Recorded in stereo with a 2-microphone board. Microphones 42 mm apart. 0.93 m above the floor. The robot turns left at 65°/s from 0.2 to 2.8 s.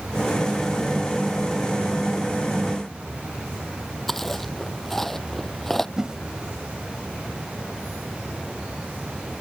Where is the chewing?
5° left (ahead or behind).